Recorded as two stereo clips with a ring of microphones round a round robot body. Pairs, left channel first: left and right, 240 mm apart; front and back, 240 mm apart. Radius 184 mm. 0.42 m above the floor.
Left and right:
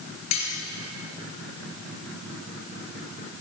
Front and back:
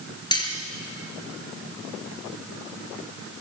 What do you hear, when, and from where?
0.3 s cutlery clinking: 70° left, 5.5 m